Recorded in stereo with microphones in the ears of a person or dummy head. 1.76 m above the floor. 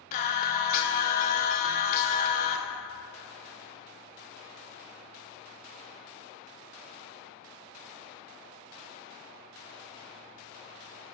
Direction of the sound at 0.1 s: 45° left (ahead or behind).